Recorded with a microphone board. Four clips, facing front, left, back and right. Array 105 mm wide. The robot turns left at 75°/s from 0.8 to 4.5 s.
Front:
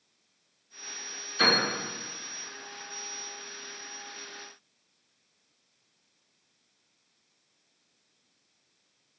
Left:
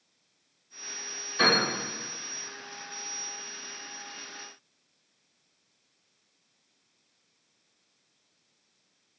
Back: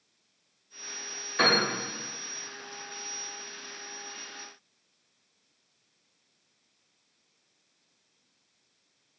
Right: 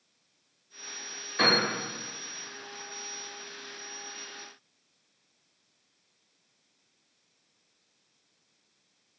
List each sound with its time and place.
1.4 s a piano: 155° right, 2.5 m; by 1.6 s 175° right, 2.5 m